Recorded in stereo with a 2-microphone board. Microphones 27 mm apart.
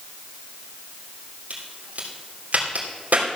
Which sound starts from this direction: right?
A crack, at 1.5 s.